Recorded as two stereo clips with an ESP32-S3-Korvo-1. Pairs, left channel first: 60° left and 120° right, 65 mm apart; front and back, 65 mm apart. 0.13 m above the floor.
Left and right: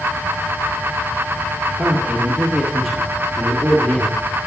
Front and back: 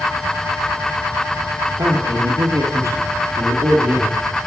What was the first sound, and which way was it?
A man speaking, straight behind.